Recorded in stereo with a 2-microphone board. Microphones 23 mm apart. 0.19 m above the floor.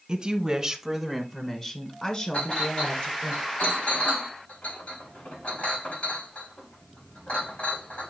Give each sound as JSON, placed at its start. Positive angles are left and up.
{"t": 0.1, "sound": "a woman speaking", "side_deg": -40, "distance_m": 1.8}
{"t": 2.3, "sound": "a clink", "side_deg": 85, "distance_m": 6.5}